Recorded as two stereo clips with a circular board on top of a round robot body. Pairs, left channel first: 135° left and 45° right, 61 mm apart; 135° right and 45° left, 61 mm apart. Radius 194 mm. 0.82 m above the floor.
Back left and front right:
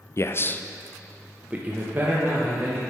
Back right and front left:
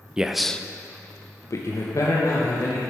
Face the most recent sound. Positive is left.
turn(degrees=-100)